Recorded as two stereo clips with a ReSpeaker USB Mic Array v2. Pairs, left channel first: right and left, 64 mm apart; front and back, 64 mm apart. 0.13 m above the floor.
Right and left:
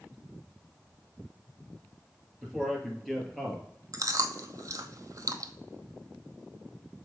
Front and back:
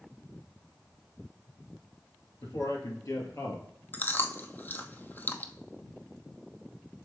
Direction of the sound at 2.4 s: 5° left.